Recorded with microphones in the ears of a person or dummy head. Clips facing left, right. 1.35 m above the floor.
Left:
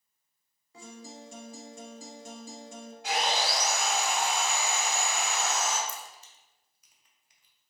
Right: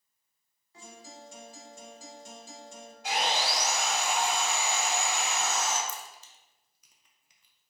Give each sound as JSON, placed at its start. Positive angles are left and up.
{"t": 0.7, "sound": "a guitar", "side_deg": 75, "distance_m": 1.0}
{"t": 3.0, "sound": "sawing", "side_deg": 70, "distance_m": 1.9}
{"t": 5.9, "sound": "a crack", "side_deg": -70, "distance_m": 0.6}